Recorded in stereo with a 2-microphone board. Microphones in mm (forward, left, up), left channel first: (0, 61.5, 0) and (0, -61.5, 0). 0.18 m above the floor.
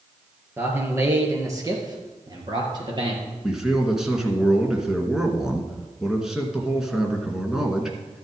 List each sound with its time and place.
0.6 s a man speaking: 15° right (ahead or behind), 3.5 m; by 3.2 s 40° right (ahead or behind), 4 m
3.4 s a man speaking: 5° right (ahead or behind), 1.9 m